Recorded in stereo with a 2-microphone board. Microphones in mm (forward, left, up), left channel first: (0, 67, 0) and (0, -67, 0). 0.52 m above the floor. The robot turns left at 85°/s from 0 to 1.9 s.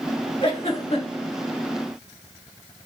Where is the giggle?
40° left (ahead or behind), 1.2 m; by 1.3 s 35° left (ahead or behind), 1.2 m.